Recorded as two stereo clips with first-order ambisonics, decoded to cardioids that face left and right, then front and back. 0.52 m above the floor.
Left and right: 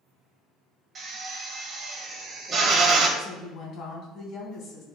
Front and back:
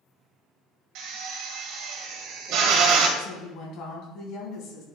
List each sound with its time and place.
0.9 s a drill: 155° right, 2 m
3.2 s a woman speaking: 40° left, 3 m